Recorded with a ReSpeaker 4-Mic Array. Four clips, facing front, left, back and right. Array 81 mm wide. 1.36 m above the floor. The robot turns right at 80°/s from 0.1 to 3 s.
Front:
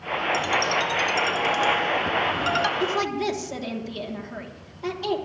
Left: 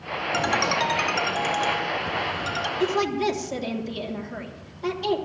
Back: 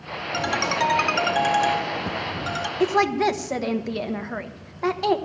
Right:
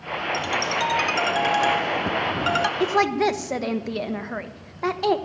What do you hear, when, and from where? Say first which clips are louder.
0.3 s a ringtone: left 3 dB, back 2 dB; 115° left, 0.6 m; by 2.7 s 55° right, 0.6 m
2.8 s a woman speaking: right 1 dB, back 5 dB; 150° right, 1.0 m; by 5.2 s 135° right, 1.0 m